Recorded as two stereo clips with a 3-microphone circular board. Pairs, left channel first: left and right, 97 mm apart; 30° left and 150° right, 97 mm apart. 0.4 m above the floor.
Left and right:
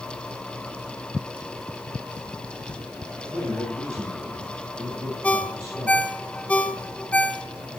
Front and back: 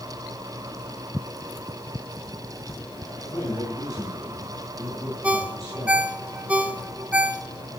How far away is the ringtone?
About 0.6 m.